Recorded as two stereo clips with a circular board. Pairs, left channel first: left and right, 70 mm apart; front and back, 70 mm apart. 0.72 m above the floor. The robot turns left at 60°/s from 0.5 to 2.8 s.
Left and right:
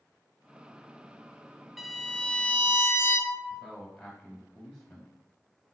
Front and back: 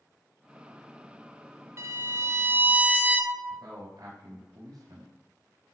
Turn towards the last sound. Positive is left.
turn(degrees=165)